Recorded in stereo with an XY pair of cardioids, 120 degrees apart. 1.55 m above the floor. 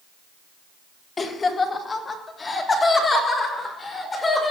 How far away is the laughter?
About 1.7 m.